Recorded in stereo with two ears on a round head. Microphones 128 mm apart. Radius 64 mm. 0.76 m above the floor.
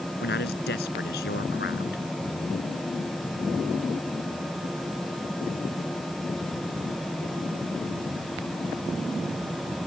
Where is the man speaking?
70° left (ahead or behind).